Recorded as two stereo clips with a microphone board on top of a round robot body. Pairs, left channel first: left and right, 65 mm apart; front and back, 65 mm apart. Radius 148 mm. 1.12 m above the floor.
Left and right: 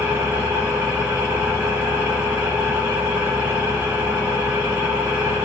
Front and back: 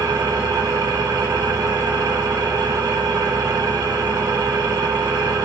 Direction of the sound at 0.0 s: 155° right.